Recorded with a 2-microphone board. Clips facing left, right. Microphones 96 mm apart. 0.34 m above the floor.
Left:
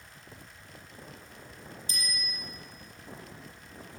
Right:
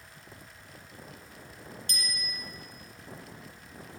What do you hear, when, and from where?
1.9 s a bicycle bell: 65° right (ahead or behind), 3.5 m